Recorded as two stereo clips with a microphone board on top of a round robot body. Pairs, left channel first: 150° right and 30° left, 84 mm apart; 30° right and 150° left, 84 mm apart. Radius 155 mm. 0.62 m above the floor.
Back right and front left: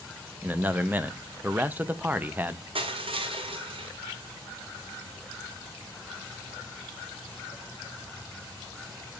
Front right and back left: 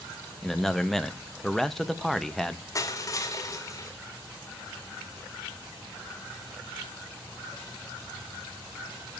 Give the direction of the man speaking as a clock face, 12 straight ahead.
10 o'clock.